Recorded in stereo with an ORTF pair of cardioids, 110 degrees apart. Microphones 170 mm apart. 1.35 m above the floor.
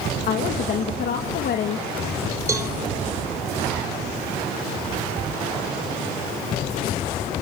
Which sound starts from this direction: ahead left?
A woman speaking, at 0.3 s.